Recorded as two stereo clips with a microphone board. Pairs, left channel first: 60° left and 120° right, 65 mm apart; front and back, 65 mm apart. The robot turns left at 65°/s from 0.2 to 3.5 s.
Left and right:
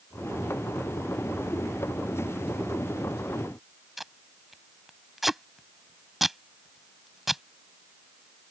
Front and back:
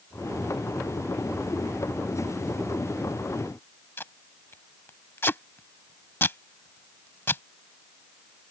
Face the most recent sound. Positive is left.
turn(degrees=-35)